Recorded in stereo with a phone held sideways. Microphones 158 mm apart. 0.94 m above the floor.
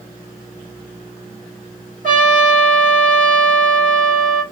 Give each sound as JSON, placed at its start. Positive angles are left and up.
{"t": 2.0, "sound": "a trumpet", "side_deg": -55, "distance_m": 1.9}